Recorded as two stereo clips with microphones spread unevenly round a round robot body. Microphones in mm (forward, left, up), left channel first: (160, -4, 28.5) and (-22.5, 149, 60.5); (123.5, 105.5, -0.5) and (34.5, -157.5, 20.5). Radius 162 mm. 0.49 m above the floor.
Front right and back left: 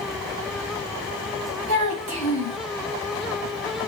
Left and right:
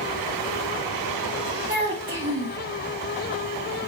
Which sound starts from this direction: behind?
A child speaking, at 1.7 s.